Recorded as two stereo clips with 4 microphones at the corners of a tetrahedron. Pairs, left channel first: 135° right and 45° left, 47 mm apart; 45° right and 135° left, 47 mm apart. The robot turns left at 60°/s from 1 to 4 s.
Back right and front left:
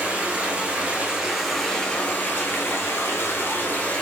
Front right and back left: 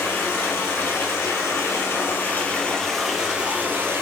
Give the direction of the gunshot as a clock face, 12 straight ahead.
No gunshot in this recording.